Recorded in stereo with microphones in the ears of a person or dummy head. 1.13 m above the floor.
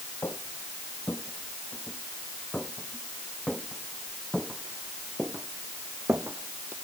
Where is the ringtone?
No ringtone in this recording.